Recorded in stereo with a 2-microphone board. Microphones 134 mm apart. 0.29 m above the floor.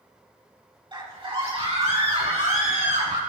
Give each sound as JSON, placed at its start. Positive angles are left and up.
{"t": 0.9, "sound": "a scream", "side_deg": -40, "distance_m": 2.5}